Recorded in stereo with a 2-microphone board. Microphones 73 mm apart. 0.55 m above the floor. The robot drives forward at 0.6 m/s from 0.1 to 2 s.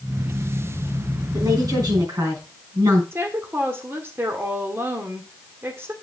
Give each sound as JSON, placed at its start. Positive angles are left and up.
{"t": 1.3, "sound": "a woman speaking", "side_deg": -55, "distance_m": 4.5}
{"t": 3.1, "sound": "a woman speaking", "side_deg": -35, "distance_m": 1.8}